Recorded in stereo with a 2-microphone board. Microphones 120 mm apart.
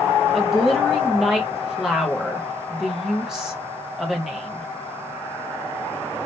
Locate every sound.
0.3 s a woman speaking: 5° right (ahead or behind), 0.9 m